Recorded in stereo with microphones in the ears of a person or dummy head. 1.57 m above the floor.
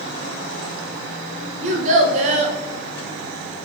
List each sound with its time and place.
1.6 s a child speaking: 50° right (ahead or behind), 1.3 m